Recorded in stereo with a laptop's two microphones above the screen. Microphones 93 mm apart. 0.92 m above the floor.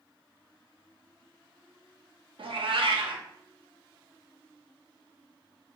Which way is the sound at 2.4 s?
70° right (ahead or behind).